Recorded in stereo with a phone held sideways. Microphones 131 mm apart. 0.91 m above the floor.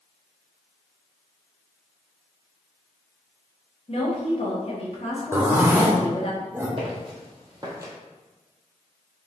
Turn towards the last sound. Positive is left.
turn(degrees=-25)  # may be behind; listen again after turning